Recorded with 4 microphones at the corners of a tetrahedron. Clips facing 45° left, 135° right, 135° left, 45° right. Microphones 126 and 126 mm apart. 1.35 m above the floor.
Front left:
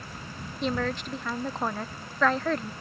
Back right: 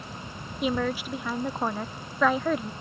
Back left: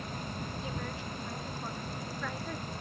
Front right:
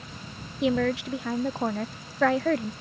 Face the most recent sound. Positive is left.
turn(degrees=-50)